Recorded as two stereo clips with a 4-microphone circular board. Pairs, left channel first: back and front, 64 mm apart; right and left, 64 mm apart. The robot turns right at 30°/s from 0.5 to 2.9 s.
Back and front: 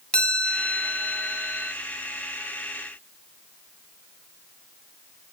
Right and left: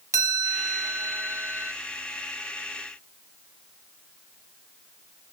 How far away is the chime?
About 1.1 m.